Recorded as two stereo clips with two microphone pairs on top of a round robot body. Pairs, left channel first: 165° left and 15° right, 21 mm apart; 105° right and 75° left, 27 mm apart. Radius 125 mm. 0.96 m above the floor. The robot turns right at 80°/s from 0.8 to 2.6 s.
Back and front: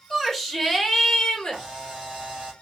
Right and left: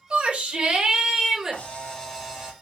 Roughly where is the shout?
Left.